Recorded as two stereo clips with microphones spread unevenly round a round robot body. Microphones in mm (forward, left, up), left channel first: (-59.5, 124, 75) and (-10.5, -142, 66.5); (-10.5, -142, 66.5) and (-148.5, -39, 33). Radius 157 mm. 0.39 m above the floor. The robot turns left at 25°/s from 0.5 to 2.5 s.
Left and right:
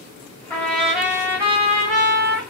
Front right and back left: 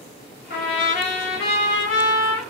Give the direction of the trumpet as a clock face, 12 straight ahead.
11 o'clock.